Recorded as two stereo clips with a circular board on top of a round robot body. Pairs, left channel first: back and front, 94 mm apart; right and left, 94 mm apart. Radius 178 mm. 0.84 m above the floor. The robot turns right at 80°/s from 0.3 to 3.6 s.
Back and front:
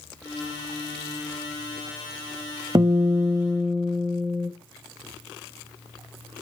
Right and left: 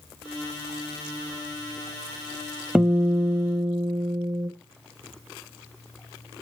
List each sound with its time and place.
2.8 s a guitar: 15° left, 0.8 m; by 4.5 s 85° left, 0.8 m